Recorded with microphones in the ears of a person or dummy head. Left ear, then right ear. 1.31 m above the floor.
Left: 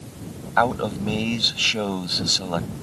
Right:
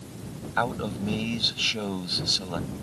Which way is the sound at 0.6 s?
15° left (ahead or behind).